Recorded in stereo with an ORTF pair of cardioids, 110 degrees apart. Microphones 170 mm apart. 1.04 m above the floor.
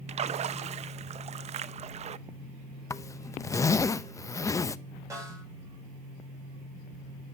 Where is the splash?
40° right, 0.7 m.